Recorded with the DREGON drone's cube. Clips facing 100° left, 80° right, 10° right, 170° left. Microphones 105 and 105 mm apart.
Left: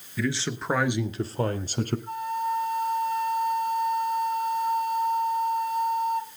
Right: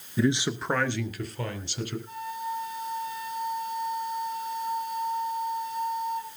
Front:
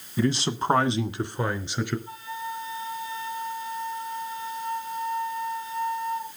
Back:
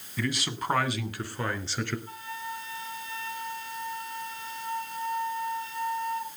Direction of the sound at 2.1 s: 70° left.